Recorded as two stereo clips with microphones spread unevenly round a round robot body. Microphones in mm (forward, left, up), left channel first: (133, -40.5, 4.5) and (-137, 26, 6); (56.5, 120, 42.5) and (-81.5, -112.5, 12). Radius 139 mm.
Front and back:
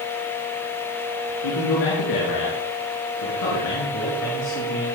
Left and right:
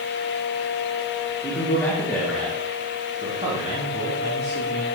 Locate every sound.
1.4 s a man speaking: 20° right, 5.5 m; by 4.8 s 70° right, 6.5 m